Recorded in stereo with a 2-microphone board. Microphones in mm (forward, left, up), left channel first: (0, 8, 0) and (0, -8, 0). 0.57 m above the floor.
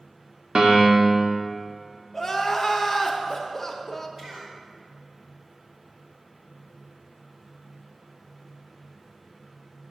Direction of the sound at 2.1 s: 5° left (ahead or behind).